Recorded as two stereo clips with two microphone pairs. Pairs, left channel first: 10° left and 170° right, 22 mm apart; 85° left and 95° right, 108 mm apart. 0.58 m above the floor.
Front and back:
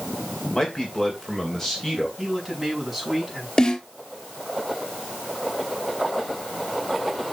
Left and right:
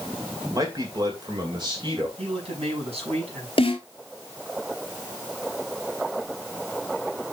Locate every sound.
0.5 s a man speaking: 45° right, 2.5 m; by 2.1 s 60° right, 3 m
2.2 s a man speaking: 85° right, 6 m
3.6 s a snare drum: 60° left, 2.5 m